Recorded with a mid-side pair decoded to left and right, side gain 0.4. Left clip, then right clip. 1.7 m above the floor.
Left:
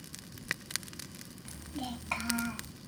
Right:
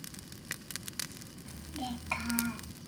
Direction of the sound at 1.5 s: 15° left.